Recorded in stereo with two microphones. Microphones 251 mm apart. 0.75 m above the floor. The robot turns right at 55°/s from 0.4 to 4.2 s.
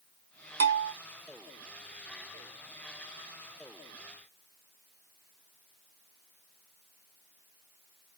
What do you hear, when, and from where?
0.6 s a bell: 60° right (ahead or behind), 0.5 m; by 0.9 s 50° right (ahead or behind), 0.5 m